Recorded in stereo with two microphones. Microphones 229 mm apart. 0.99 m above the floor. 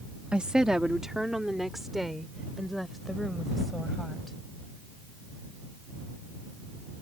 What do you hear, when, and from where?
0.3 s a woman speaking: 5° right (ahead or behind); by 4.4 s centre (ahead or behind)